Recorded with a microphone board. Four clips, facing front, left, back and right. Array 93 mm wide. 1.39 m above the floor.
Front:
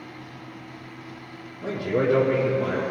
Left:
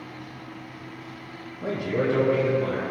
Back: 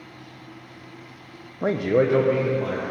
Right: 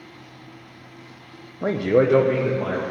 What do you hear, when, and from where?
1.6 s a man speaking: 150° right, 0.7 m; by 2.8 s 85° right, 2 m